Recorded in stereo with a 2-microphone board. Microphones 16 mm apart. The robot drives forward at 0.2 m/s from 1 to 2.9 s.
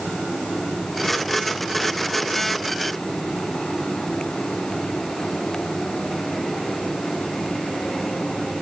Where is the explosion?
No explosion in this recording.